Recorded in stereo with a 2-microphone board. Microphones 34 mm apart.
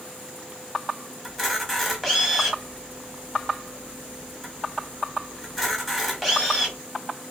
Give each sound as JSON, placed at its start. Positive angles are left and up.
{"t": 1.2, "sound": "a camera shutter", "side_deg": 5, "distance_m": 1.0}